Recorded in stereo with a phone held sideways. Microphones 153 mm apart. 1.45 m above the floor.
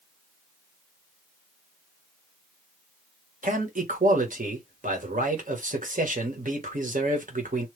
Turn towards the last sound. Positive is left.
turn(degrees=-60)  # may be behind; listen again after turning